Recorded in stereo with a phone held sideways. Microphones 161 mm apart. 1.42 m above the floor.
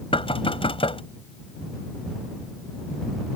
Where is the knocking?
30° left (ahead or behind).